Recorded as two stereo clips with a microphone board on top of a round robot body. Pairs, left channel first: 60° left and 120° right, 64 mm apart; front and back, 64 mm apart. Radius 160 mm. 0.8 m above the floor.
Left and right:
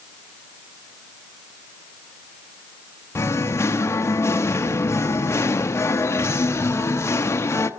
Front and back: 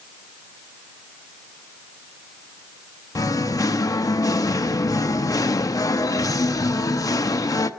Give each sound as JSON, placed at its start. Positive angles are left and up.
{"t": 3.1, "sound": "singing", "azimuth_deg": 15, "distance_m": 1.1}